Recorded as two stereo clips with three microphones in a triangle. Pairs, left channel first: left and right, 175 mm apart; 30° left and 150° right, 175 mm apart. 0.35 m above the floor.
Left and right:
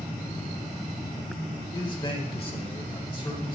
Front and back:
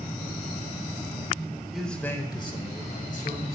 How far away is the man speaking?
About 1.4 m.